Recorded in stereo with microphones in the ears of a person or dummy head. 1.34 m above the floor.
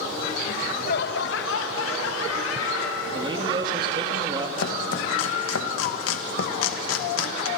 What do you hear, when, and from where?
0.5 s laughter: 45° left (ahead or behind), 1.8 m; by 3.0 s 65° left (ahead or behind), 3 m
3.1 s a man speaking: 25° right (ahead or behind), 2.5 m
4.6 s chopping: 80° left, 1.6 m